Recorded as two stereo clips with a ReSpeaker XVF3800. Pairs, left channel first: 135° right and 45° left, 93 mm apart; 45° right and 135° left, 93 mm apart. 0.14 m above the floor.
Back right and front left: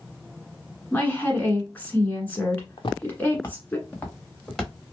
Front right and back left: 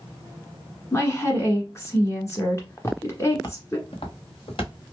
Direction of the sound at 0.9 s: 80° right.